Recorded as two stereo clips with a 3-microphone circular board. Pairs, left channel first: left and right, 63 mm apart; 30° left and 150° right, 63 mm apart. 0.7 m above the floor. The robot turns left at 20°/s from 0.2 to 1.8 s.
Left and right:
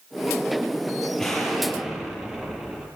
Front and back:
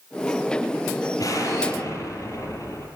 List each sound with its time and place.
1.2 s an explosion: 5° left, 9.5 m; by 2.9 s 10° right, 9.5 m